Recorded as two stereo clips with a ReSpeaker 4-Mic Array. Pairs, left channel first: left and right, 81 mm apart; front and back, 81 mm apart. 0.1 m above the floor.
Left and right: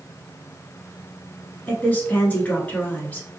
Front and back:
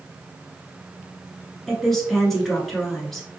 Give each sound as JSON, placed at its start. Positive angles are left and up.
{"t": 1.7, "sound": "a woman speaking", "azimuth_deg": 80, "distance_m": 1.1}